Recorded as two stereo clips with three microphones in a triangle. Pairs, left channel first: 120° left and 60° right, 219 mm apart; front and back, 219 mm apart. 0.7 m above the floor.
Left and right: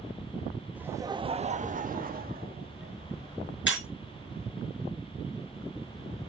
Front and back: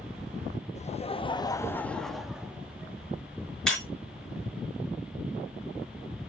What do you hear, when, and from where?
0.8 s laughter: 20° left, 0.7 m; by 3.0 s 100° right, 1.3 m
3.7 s breaking glass: 85° left, 5 m